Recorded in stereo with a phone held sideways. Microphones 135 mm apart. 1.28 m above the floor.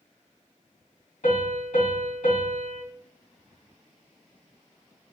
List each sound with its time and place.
1.2 s a piano: 75° left (ahead or behind), 3 m